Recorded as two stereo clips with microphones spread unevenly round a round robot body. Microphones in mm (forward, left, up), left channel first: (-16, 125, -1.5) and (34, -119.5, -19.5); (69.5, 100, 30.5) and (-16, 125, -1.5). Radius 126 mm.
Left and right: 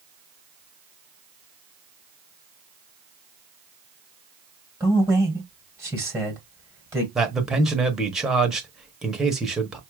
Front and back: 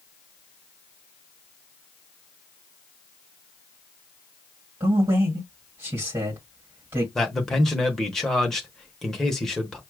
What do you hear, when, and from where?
4.8 s a man speaking: 155° right, 2.0 m
7.2 s a man speaking: 150° right, 0.8 m